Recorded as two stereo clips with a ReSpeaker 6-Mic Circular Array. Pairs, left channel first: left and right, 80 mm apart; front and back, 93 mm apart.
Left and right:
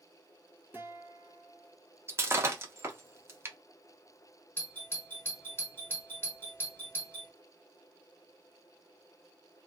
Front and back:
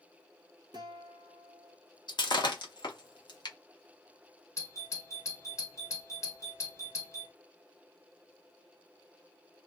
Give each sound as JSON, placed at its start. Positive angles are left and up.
{"t": 0.7, "sound": "a guitar", "azimuth_deg": -150, "distance_m": 0.7}
{"t": 2.1, "sound": "breaking glass", "azimuth_deg": -35, "distance_m": 0.6}
{"t": 4.6, "sound": "a doorbell", "azimuth_deg": 40, "distance_m": 1.0}